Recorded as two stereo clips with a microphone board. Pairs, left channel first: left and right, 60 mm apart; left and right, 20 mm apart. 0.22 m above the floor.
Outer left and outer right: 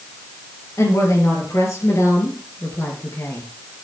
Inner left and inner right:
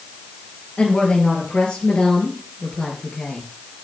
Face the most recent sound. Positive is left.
turn(degrees=40)  # may be behind; listen again after turning